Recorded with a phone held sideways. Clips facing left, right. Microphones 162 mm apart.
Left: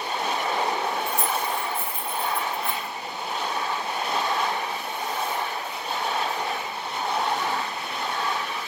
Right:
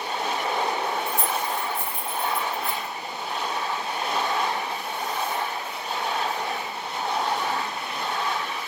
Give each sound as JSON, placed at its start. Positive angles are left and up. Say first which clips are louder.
{"t": 1.1, "sound": "keys jangling", "louder": "even", "side_deg": -40, "distance_m": 0.9}